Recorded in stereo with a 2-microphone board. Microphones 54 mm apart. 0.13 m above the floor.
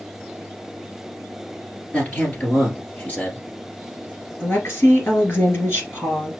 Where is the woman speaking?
45° left (ahead or behind), 2.5 m.